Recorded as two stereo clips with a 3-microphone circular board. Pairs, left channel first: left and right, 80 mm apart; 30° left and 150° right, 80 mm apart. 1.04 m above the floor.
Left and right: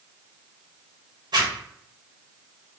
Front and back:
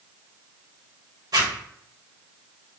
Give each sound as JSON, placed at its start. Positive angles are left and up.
{"t": 1.3, "sound": "a zipper", "azimuth_deg": -120, "distance_m": 1.2}